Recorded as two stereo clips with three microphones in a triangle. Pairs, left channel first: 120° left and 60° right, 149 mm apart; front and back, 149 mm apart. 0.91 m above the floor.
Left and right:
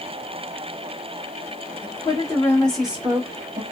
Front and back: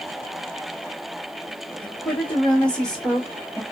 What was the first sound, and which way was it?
A woman speaking, 75° left.